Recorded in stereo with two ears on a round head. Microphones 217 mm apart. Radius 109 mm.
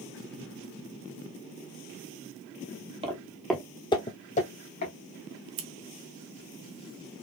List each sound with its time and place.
3.0 s footsteps: 25° right (ahead or behind), 1.1 m; by 4.9 s 40° left (ahead or behind), 2 m
5.6 s scissors: 50° right (ahead or behind), 1.2 m